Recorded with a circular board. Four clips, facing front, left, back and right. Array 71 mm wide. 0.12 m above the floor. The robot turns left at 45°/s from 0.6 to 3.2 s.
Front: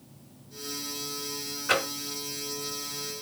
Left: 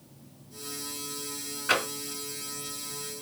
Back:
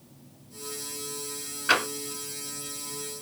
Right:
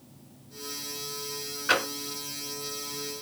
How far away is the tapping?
About 2.0 m.